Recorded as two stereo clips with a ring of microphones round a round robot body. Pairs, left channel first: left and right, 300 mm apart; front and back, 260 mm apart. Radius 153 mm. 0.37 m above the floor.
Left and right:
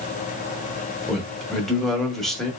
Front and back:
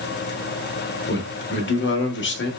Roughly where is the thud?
No thud in this recording.